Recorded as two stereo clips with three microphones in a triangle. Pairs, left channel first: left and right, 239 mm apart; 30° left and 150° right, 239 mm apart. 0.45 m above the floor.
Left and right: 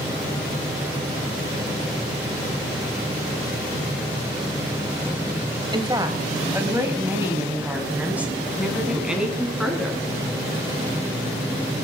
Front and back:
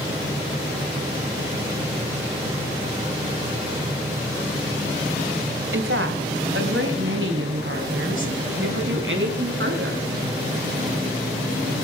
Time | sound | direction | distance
5.7 | a woman speaking | 160° right | 2.5 m